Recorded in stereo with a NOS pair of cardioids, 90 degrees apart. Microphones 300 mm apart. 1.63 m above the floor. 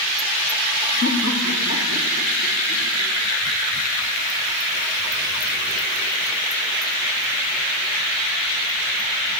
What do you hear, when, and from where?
1.0 s laughter: 45° left, 2.5 m; by 3.1 s 60° left, 4 m